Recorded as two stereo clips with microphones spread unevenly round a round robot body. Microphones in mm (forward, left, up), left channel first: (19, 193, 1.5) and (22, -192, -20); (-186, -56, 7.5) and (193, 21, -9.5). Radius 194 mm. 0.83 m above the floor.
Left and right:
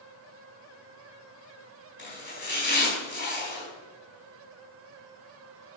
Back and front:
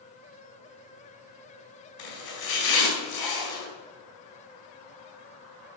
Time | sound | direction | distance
2.0 | chopping | 155° left | 4.5 m